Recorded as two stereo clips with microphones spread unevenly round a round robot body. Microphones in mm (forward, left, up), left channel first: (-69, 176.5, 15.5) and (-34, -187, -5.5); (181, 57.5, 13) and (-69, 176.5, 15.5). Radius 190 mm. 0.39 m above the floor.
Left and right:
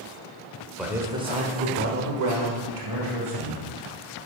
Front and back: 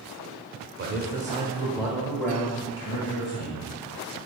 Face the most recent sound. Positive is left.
turn(degrees=-85)